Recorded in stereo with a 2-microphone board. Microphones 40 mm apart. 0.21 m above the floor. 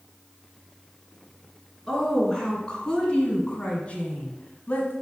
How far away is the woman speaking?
About 3 m.